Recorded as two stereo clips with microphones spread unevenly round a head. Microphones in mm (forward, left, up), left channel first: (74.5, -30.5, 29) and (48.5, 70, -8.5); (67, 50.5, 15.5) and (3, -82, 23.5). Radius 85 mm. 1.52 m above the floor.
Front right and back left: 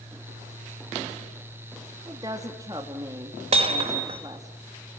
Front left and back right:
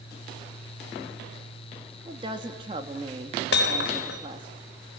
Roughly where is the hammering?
Left.